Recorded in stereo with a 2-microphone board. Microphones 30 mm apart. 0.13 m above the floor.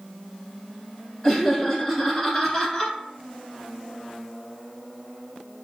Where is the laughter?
15° left (ahead or behind), 1.4 m.